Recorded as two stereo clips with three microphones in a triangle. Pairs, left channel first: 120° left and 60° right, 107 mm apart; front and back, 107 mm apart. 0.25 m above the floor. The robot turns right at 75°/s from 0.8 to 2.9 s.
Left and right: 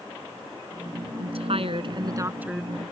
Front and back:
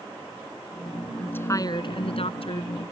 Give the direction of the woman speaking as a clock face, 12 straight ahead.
3 o'clock.